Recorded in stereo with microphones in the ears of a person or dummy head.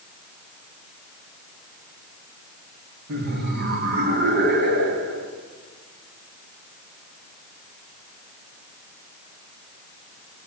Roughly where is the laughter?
Right.